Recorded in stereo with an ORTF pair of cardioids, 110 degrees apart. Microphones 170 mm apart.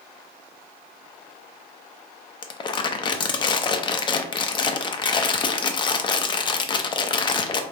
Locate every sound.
2.4 s crumpling: 25° left, 0.7 m